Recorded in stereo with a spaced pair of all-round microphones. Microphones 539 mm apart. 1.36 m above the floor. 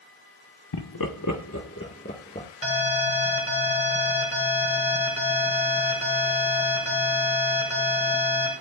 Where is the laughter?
50° left (ahead or behind), 0.9 m; by 2.5 s 15° left (ahead or behind), 1.6 m.